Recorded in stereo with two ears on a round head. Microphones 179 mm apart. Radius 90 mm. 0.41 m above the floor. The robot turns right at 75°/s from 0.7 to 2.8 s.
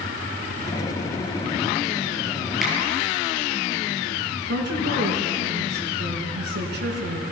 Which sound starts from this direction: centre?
A finger snap, at 2.6 s.